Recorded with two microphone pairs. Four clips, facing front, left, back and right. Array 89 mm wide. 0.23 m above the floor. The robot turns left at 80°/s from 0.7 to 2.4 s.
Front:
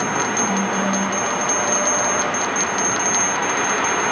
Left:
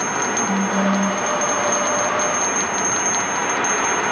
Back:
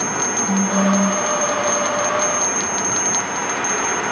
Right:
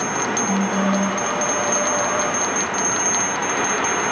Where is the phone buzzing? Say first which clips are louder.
Left 1 dB, back 3 dB; 130° right, 1.9 m; by 1.2 s 170° right, 1.9 m.